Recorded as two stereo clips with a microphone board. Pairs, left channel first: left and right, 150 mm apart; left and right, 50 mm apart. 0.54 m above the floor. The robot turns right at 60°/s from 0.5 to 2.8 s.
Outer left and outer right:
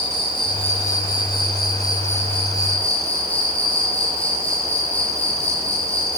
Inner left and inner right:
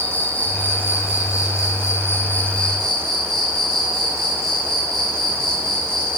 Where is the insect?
30° left, 5.5 m; by 6.2 s 170° left, 5.5 m.